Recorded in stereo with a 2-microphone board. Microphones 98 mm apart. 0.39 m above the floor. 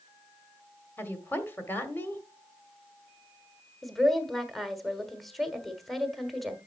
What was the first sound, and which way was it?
A woman speaking, 20° left (ahead or behind).